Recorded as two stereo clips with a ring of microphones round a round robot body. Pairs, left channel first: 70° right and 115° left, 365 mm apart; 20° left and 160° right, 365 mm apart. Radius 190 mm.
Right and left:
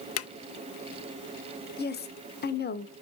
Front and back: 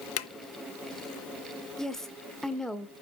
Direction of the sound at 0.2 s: 25° right.